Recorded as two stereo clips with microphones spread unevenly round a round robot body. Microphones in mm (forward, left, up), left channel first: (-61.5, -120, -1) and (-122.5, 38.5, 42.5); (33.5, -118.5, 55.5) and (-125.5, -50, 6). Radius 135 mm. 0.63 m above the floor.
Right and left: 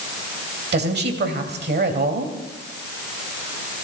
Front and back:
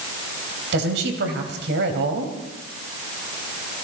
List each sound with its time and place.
0.7 s a woman speaking: 135° left, 3 m